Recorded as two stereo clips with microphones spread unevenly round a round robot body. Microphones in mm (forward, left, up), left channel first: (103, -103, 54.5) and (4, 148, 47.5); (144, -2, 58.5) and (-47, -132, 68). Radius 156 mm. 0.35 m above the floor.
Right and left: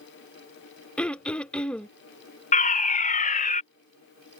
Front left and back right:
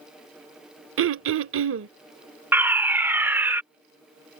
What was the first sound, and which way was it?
Throat clearing, 155° right.